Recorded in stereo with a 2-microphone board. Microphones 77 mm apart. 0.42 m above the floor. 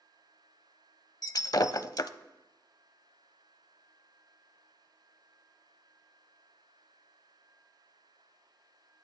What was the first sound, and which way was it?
Breaking glass, 55° left (ahead or behind).